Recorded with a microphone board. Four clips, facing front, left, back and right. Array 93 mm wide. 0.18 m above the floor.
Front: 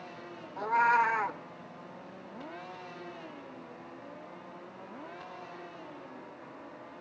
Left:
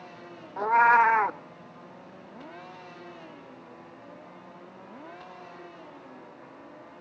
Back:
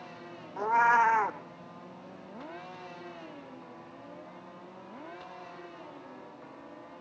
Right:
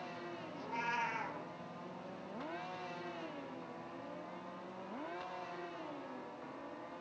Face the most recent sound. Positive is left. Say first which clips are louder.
# left 20 dB, back 2 dB
turn(degrees=110)